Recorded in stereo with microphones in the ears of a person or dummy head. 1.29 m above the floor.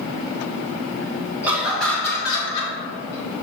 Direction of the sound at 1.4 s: 15° right (ahead or behind).